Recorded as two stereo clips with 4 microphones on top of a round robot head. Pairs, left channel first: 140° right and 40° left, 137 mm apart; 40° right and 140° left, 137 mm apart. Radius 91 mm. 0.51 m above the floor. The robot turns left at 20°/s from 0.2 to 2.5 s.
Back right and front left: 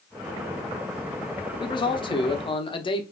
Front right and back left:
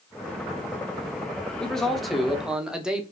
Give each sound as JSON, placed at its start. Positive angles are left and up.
{"t": 1.6, "sound": "a man speaking", "azimuth_deg": -125, "distance_m": 0.9}